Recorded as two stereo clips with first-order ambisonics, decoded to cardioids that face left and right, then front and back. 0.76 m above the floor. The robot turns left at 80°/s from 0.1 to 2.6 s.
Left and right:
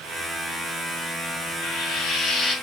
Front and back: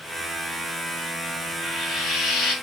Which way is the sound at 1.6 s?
95° left.